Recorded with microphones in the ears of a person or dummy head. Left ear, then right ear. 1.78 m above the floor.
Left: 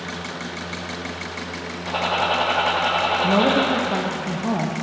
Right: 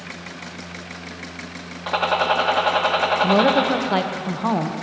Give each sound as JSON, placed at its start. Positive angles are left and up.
{"t": 1.9, "sound": "a gunshot", "side_deg": -60, "distance_m": 2.0}
{"t": 3.2, "sound": "a woman speaking", "side_deg": -45, "distance_m": 1.0}